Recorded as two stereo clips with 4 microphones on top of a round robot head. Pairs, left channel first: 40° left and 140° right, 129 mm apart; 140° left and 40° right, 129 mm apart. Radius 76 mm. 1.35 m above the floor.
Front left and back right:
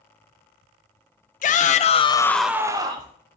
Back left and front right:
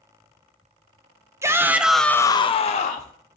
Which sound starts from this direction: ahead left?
A shout, at 1.4 s.